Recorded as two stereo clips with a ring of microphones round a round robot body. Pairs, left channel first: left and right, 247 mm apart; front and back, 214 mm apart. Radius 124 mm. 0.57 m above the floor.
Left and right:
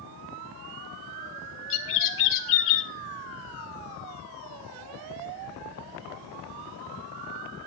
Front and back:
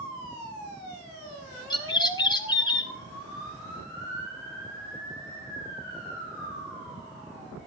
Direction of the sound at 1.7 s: 65° left.